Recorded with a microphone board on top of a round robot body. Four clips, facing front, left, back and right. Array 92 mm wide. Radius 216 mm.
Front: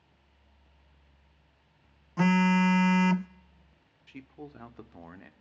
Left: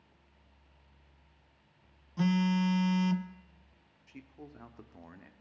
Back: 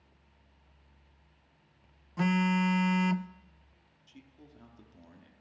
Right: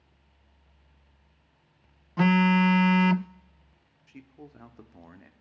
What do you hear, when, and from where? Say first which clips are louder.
2.2 s a phone buzzing: right 8 dB, front 4 dB; 70° right, 0.6 m
4.1 s a man speaking: right 2 dB, front 10 dB; straight ahead, 1.8 m